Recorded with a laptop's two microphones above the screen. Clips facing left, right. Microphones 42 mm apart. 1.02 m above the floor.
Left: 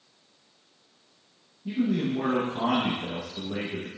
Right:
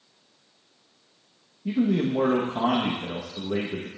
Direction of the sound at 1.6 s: 75° right (ahead or behind).